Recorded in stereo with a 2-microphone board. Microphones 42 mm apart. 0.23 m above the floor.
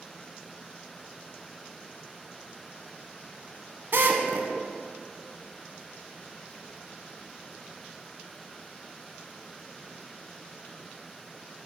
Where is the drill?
60° right (ahead or behind), 0.7 m.